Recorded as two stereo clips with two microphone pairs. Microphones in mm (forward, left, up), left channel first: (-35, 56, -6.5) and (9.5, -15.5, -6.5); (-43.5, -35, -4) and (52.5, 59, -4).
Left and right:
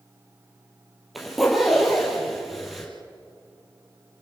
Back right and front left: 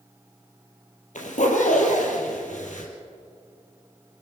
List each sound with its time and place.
1.1 s a zipper: 145° right, 4 m